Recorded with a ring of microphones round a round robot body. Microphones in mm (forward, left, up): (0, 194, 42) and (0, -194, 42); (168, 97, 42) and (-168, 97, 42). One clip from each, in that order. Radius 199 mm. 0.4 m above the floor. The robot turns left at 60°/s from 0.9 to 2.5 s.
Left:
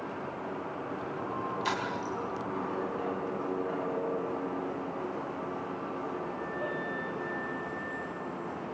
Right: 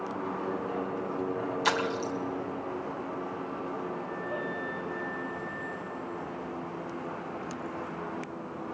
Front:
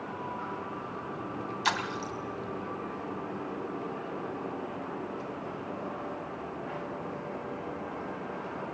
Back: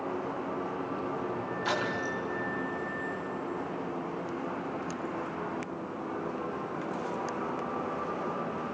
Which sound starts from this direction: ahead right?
A splash, at 1.6 s.